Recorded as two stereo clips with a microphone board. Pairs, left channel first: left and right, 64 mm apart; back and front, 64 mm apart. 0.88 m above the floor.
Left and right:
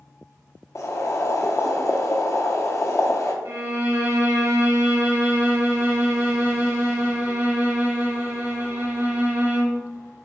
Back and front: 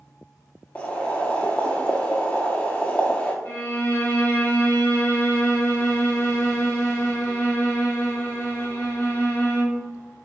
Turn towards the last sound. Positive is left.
turn(degrees=-130)